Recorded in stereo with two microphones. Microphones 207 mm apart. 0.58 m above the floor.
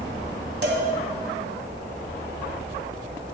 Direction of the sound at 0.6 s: 60° right (ahead or behind).